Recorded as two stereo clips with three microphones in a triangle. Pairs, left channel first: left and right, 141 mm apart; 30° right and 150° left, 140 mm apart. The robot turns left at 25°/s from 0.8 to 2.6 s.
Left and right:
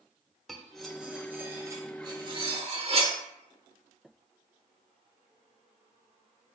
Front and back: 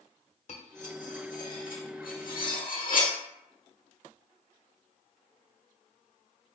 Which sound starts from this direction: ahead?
Cutlery clinking, at 0.5 s.